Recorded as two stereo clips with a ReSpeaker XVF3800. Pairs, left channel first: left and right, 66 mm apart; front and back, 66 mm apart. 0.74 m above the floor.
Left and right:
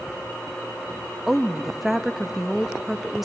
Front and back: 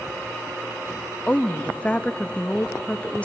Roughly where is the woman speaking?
Ahead.